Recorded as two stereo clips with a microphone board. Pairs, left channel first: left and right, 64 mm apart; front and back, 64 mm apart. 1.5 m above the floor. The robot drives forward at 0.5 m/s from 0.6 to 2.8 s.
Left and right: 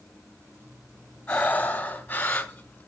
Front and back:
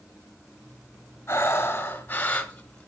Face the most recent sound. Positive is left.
turn(degrees=65)